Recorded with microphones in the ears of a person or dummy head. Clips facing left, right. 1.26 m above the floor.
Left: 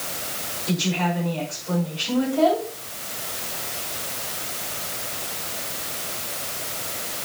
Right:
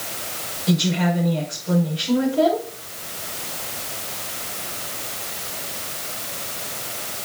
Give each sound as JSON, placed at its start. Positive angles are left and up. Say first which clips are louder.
{"t": 0.7, "sound": "a woman speaking", "louder": "right 4 dB", "side_deg": -10, "distance_m": 5.5}